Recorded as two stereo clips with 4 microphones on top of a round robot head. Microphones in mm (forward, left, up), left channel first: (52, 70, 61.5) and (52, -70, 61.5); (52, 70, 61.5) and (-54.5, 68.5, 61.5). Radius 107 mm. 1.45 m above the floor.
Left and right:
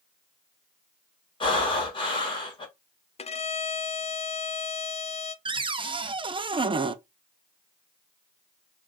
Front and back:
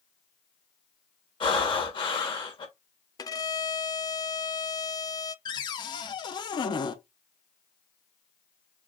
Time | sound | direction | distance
1.4 | breathing | 40° left | 1.5 m
3.2 | a violin | 55° left | 0.5 m
5.5 | a cupboard door | 40° right | 0.5 m